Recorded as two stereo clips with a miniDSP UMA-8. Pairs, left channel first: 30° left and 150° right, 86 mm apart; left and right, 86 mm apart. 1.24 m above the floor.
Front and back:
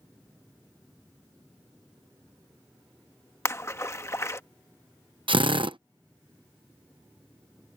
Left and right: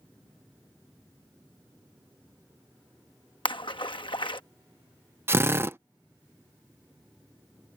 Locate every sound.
3.5 s a splash: 85° left
5.3 s a drill: 150° right